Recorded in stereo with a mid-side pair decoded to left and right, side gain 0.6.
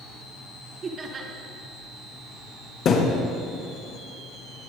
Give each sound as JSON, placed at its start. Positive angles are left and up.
{"t": 0.8, "sound": "laughter", "azimuth_deg": -35, "distance_m": 2.5}
{"t": 2.9, "sound": "a thud", "azimuth_deg": 55, "distance_m": 4.0}